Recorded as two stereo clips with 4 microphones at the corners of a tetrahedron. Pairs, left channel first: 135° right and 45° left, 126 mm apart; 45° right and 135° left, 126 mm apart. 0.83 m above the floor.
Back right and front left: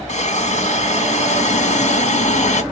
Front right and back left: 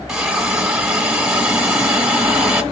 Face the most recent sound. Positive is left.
turn(degrees=-140)